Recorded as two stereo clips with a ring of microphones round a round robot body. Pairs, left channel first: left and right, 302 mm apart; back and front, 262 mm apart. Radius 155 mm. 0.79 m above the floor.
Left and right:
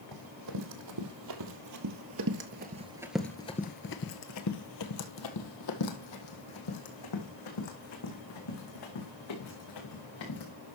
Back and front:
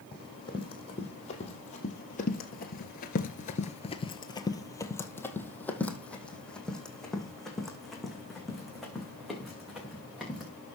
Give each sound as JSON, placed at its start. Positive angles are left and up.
{"t": 0.1, "sound": "running footsteps", "azimuth_deg": -105, "distance_m": 2.5}